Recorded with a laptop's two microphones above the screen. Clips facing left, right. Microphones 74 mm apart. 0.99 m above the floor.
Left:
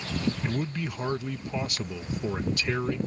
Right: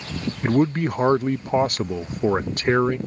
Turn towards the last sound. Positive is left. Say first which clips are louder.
# right 11 dB
turn(degrees=-50)  # may be behind; listen again after turning